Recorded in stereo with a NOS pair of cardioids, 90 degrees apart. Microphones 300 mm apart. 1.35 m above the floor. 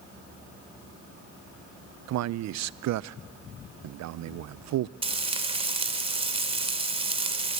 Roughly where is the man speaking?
Ahead right.